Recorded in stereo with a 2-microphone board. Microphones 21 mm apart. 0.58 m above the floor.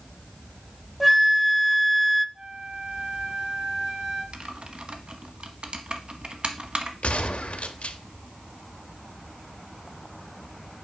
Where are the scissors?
I don't hear scissors.